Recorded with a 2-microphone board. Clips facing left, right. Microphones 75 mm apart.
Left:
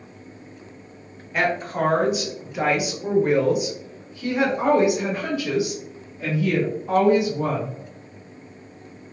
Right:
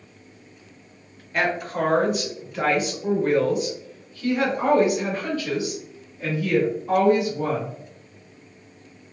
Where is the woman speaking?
5° left (ahead or behind), 1.8 m; by 7.7 s 10° left (ahead or behind), 2.5 m.